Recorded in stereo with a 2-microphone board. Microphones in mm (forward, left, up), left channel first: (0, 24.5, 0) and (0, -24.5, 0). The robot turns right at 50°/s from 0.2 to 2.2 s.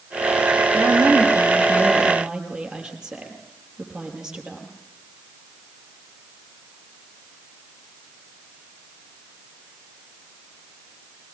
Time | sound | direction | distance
0.7 | a woman speaking | 85° right | 5.5 m